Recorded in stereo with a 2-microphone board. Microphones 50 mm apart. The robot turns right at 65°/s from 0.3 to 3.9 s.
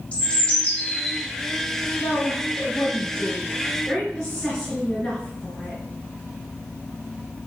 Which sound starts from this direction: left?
A bird, at 0.1 s.